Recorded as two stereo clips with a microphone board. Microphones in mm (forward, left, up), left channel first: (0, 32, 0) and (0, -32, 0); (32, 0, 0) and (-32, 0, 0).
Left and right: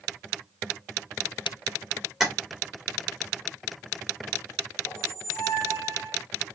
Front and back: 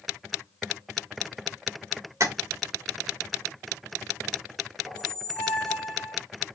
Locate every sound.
2.2 s tapping: 170° right, 1.5 m
4.9 s a squeak: 75° left, 1.1 m